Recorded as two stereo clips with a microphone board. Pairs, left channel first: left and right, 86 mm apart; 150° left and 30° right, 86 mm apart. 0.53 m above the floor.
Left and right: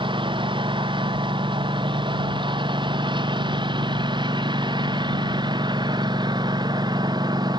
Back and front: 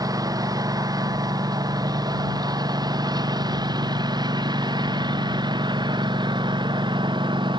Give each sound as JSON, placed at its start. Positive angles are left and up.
{"t": 0.0, "sound": "a lawn mower", "azimuth_deg": -75}